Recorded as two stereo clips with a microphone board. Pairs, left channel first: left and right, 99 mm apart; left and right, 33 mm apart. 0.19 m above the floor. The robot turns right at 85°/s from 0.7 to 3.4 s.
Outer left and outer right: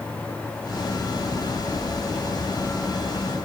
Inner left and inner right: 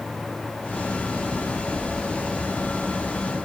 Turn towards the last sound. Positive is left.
No sound to turn to.